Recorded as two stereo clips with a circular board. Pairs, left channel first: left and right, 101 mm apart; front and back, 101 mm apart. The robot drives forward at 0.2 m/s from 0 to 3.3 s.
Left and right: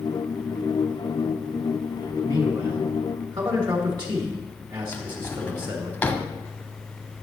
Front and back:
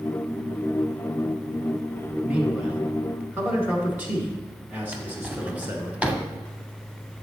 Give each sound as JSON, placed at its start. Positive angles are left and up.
{"t": 2.2, "sound": "a man speaking", "azimuth_deg": -105, "distance_m": 2.0}
{"t": 4.9, "sound": "a drawer", "azimuth_deg": 125, "distance_m": 0.7}